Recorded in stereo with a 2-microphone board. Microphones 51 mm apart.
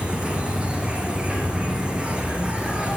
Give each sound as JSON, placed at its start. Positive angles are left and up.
{"t": 0.0, "sound": "an insect", "side_deg": -20, "distance_m": 3.5}